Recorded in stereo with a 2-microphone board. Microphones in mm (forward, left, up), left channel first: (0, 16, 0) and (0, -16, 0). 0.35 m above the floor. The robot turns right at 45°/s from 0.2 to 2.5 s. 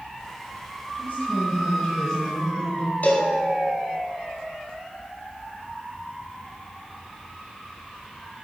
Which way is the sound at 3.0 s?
65° left (ahead or behind).